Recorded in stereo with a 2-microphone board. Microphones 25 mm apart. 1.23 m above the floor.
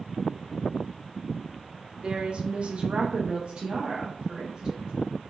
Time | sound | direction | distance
2.0 | a woman speaking | 35° right (ahead or behind) | 0.6 m